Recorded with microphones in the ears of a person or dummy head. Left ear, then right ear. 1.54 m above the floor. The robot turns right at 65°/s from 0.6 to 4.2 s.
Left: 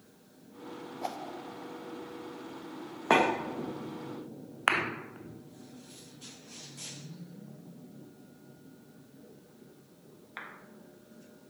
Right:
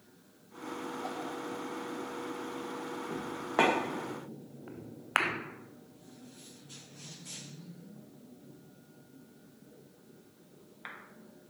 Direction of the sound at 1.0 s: 65° left (ahead or behind).